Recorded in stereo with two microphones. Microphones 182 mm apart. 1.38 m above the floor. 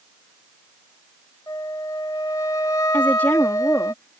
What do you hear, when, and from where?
1.5 s a flute: 20° left (ahead or behind)
2.9 s a woman speaking: 10° left (ahead or behind)